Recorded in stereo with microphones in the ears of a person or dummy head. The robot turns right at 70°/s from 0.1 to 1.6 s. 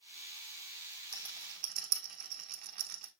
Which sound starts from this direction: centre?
A rattle, at 1.1 s.